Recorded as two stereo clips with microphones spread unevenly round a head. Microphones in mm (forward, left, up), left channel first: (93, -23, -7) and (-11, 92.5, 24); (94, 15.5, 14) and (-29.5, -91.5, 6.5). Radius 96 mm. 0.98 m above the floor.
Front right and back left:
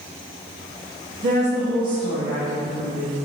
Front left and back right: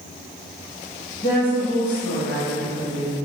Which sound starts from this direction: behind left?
A woman speaking, at 1.2 s.